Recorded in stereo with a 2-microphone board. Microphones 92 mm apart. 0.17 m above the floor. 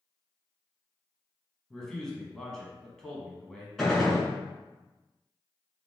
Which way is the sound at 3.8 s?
5° left (ahead or behind).